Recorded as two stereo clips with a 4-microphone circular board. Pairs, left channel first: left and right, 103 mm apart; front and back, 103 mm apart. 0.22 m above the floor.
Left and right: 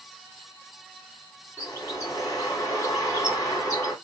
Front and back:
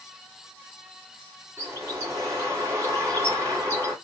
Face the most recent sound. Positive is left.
turn(degrees=130)